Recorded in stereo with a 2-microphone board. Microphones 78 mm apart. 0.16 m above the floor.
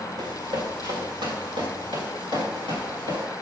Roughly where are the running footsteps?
Right.